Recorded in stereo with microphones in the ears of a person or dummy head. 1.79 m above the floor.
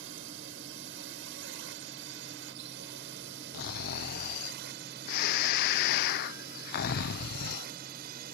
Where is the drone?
65° right (ahead or behind); by 8.3 s 50° right (ahead or behind).